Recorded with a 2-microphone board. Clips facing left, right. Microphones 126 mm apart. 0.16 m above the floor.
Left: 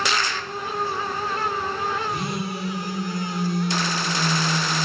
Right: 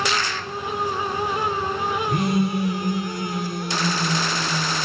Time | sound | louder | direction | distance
2.1 | a phone buzzing | right 6 dB | 55° right (ahead or behind) | 1.2 m